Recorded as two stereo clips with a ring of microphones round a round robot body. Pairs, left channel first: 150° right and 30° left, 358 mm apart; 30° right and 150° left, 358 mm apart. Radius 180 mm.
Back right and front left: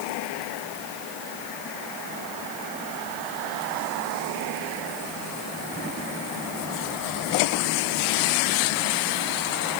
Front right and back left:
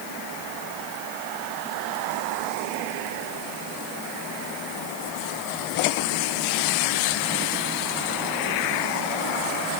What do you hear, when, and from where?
Only background noise.